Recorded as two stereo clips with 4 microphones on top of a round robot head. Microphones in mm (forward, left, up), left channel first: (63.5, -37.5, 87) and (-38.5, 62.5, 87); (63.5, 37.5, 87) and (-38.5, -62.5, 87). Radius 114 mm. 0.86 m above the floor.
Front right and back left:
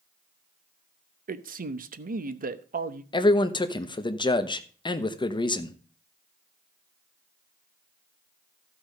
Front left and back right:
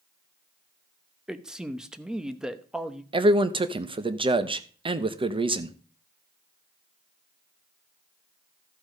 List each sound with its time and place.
1.3 s a man speaking: 140° left, 0.9 m
3.1 s a man speaking: 95° right, 1.1 m